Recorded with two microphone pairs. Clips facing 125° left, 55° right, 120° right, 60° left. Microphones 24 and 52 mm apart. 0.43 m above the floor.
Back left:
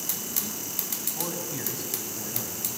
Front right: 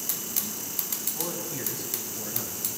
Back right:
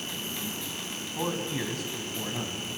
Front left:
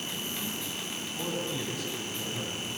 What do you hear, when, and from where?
1.1 s a man speaking: 165° right, 3.5 m; by 2.7 s 140° right, 4 m